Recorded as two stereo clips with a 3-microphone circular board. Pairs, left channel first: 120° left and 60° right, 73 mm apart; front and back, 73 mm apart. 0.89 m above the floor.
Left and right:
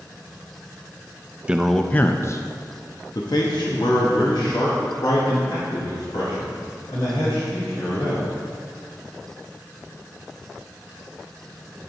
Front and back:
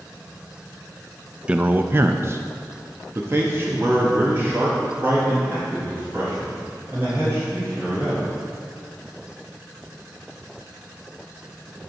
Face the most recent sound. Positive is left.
turn(degrees=120)